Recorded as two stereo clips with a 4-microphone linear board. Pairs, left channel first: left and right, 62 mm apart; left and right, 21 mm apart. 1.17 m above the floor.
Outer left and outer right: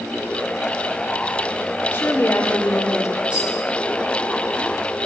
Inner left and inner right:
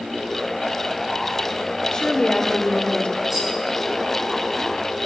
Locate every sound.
1.9 s a woman speaking: 40° left (ahead or behind), 3 m; by 3.2 s 50° left (ahead or behind), 3 m
3.3 s a rattle: 20° right (ahead or behind), 8 m